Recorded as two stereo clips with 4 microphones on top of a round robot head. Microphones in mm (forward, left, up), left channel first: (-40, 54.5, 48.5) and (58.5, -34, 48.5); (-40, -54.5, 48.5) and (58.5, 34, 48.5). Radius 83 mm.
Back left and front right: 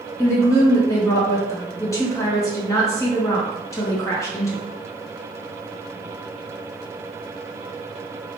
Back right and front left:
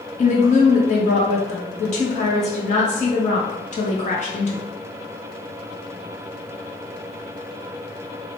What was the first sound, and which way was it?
A woman speaking, 160° right.